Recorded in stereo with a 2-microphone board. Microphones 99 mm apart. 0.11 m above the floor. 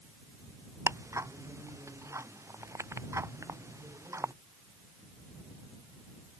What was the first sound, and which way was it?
Ticking, 30° right (ahead or behind).